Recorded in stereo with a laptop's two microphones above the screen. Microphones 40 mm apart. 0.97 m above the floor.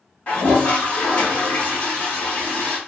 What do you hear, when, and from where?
0.3 s a toilet flushing: 35° left (ahead or behind), 1.3 m